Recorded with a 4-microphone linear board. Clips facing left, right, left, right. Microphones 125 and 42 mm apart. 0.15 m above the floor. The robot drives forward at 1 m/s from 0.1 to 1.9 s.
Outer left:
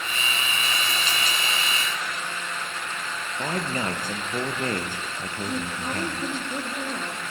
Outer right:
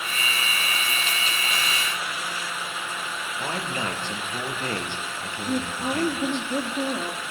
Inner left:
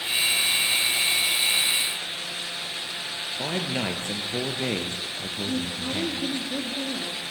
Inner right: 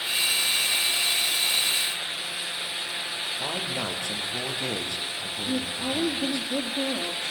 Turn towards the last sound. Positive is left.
turn(degrees=-10)  # may be behind; listen again after turning